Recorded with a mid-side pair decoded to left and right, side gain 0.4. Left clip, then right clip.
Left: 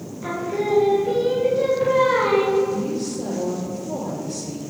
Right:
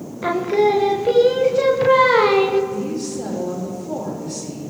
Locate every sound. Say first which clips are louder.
0.2 s singing: right 8 dB; 70° right, 0.6 m
2.7 s a woman speaking: even; 50° right, 3 m